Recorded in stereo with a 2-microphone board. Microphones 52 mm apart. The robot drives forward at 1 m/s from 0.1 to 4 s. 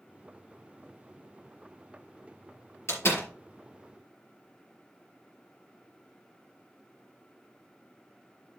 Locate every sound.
2.9 s a door slam: 60° left (ahead or behind), 4.5 m; by 3.3 s 55° left (ahead or behind), 4.5 m